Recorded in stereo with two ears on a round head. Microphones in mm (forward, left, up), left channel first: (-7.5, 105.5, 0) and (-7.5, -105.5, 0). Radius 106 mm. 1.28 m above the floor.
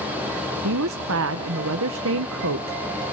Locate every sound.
0.6 s a woman speaking: 60° right (ahead or behind), 0.7 m